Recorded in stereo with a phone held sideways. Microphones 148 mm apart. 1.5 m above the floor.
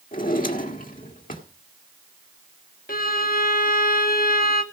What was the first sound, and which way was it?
A drawer, 70° left (ahead or behind).